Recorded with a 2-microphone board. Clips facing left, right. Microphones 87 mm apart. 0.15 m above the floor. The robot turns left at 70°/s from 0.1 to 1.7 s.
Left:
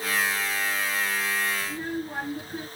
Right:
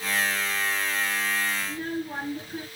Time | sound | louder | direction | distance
1.6 | a child speaking | even | 10° left (ahead or behind) | 1.8 m